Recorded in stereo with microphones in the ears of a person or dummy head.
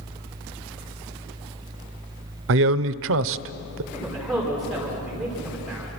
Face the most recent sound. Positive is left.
turn(degrees=0)  # may be behind; listen again after turning